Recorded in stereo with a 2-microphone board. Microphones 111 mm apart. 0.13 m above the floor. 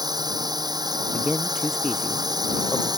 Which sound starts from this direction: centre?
A man speaking, at 1.1 s.